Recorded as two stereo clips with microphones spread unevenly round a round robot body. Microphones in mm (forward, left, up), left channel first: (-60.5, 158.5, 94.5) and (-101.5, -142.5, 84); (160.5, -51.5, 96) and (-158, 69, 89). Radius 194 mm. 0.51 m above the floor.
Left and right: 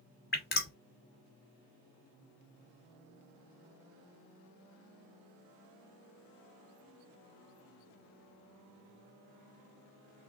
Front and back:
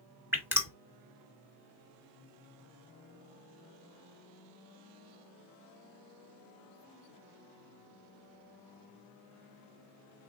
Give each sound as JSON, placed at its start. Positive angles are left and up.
{"t": 0.3, "sound": "dripping", "azimuth_deg": 85, "distance_m": 1.4}